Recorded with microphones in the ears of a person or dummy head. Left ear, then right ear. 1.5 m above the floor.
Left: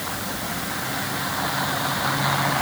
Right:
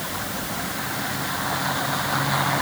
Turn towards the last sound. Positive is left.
No sound to turn to.